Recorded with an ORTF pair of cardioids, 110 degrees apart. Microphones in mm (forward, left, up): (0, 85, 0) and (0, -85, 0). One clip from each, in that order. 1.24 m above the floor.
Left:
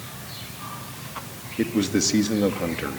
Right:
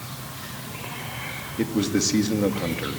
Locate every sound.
1.6 s a man speaking: 10° left, 2.5 m